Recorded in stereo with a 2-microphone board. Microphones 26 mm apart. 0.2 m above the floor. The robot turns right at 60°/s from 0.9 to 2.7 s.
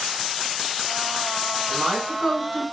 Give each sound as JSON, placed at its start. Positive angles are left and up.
{"t": 1.7, "sound": "a woman speaking", "azimuth_deg": -30, "distance_m": 1.9}